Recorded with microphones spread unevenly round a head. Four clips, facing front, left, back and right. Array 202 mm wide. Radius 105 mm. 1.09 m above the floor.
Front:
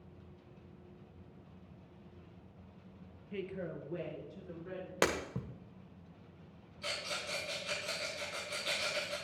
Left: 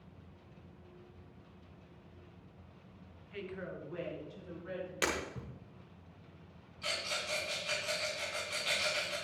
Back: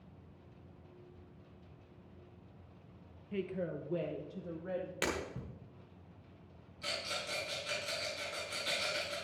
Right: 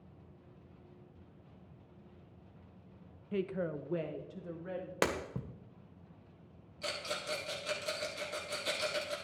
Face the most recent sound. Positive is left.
turn(degrees=-110)